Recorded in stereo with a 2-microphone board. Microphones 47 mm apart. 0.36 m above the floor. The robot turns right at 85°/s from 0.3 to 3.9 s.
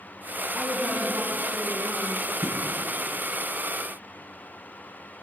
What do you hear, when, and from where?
0.5 s a woman speaking: 160° left, 3 m; by 2.3 s 50° right, 3 m
2.4 s a thud: 50° right (ahead or behind), 3.5 m; by 2.6 s 40° right (ahead or behind), 3.5 m